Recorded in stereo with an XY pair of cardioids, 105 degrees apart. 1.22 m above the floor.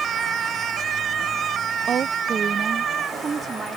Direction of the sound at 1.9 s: 50° right.